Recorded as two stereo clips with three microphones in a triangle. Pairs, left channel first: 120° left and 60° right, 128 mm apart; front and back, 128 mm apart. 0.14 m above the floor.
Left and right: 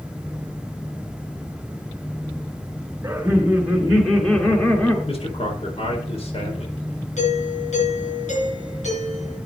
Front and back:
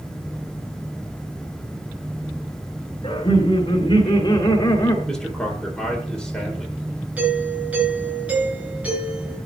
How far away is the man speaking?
About 4.5 m.